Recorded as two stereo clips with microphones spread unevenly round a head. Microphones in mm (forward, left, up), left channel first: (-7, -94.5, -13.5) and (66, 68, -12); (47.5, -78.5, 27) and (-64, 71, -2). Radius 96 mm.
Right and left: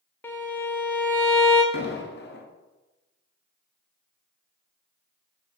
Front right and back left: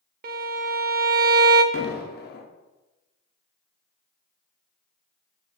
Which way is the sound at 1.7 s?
90° right.